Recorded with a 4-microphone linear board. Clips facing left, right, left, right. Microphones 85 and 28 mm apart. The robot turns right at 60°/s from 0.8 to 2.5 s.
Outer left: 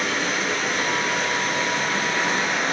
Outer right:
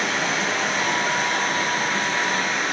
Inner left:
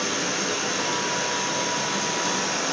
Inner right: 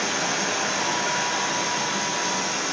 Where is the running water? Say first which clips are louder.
Outer right 1 dB, inner right 1 dB; 105° right, 1.6 m; by 2.7 s straight ahead, 1.6 m.